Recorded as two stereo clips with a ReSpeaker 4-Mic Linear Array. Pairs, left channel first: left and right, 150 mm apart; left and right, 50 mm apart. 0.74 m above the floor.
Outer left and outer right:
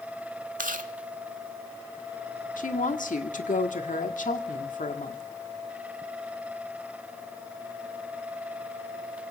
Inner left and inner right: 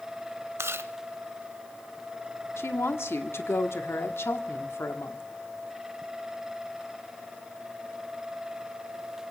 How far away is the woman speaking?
About 1.6 m.